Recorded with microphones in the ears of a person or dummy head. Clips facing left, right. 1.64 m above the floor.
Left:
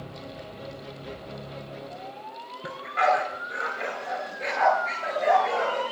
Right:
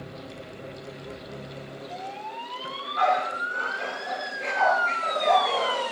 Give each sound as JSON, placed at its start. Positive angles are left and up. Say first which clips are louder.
{"t": 2.6, "sound": "a dog barking", "louder": "even", "side_deg": 30, "distance_m": 6.5}